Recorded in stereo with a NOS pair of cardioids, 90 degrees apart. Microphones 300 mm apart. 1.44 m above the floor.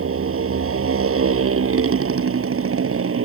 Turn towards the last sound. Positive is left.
turn(degrees=-45)